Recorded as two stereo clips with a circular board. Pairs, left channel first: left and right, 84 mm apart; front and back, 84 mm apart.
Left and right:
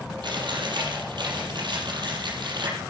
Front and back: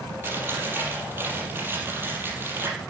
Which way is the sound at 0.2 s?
115° right.